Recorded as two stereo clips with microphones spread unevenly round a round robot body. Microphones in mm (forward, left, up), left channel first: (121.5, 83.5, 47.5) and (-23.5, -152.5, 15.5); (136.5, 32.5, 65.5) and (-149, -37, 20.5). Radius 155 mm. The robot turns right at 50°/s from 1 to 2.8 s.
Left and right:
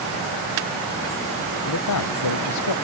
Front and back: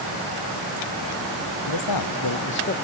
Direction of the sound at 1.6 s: 20° left.